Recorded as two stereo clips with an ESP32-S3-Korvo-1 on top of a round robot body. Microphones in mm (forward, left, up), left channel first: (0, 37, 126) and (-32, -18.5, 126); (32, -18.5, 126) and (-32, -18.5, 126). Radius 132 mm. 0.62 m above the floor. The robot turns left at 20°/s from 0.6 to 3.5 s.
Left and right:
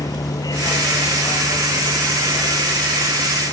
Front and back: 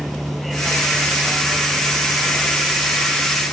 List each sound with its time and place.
0.0 s a vehicle: 90° left; by 3.5 s 35° left